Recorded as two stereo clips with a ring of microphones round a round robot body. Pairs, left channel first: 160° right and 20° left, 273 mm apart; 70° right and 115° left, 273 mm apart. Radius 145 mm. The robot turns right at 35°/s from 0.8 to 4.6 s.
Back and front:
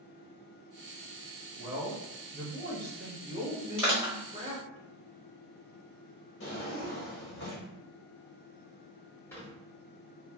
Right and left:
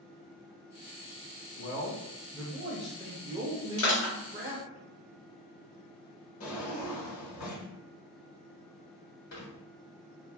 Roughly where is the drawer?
Right.